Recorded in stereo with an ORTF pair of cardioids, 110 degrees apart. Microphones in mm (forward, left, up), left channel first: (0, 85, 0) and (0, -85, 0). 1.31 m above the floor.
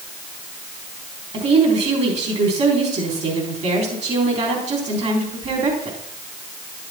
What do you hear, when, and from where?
1.3 s a woman speaking: 40° right, 3.5 m